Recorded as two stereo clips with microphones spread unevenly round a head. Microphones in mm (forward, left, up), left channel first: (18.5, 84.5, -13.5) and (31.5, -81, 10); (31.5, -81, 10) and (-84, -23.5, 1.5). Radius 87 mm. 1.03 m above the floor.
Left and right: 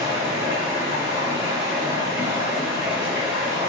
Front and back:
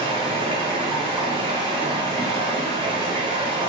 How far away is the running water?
About 0.9 m.